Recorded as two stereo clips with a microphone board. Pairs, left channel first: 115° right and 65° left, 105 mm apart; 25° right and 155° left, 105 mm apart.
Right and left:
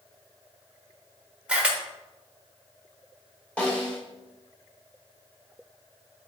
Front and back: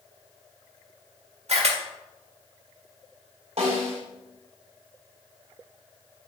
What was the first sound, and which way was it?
A camera shutter, 150° left.